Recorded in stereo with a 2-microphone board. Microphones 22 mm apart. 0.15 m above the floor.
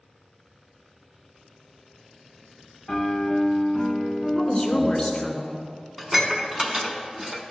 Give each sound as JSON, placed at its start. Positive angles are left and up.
{"t": 2.9, "sound": "a piano", "side_deg": 20, "distance_m": 0.5}
{"t": 4.3, "sound": "a woman speaking", "side_deg": 15, "distance_m": 1.9}
{"t": 6.0, "sound": "dishes clattering", "side_deg": -15, "distance_m": 0.9}